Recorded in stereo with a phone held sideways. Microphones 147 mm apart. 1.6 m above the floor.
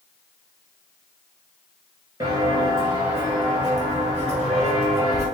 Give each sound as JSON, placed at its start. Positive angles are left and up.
{"t": 2.2, "sound": "footsteps", "side_deg": -30, "distance_m": 2.0}